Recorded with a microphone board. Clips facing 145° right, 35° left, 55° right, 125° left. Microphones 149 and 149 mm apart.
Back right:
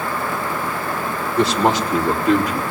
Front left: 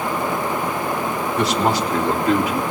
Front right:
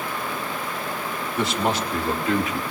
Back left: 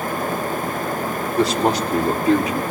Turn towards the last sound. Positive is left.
turn(degrees=100)